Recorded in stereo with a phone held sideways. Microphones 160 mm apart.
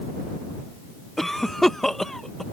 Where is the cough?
Centre (ahead or behind).